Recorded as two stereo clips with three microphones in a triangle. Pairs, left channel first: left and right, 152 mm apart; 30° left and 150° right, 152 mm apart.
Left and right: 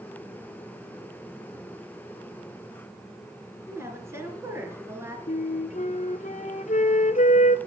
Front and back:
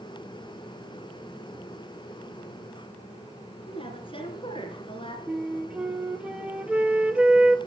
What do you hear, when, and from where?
3.7 s a woman speaking: 20° right, 3 m
5.3 s a flute: 130° left, 0.7 m